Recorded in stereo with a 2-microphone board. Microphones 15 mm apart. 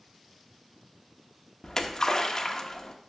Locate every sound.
1.6 s a splash: 40° left (ahead or behind), 1.2 m